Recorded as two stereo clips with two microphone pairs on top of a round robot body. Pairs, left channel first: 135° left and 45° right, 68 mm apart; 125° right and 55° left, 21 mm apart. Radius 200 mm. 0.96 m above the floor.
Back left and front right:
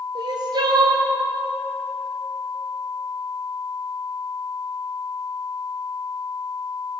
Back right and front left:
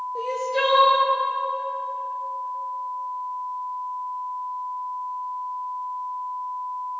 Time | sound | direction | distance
0.1 | crying | 35° right | 1.7 m